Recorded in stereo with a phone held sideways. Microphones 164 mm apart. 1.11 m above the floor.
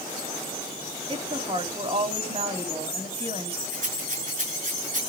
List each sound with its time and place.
1.1 s a woman speaking: 35° right (ahead or behind), 3 m
3.7 s a rattle: 50° right (ahead or behind), 9 m